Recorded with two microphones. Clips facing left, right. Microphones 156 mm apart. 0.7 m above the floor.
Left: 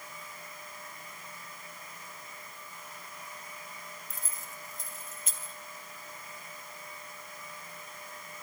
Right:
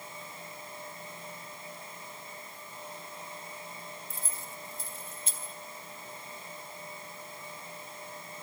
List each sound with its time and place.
4.1 s keys jangling: 30° right (ahead or behind), 2.5 m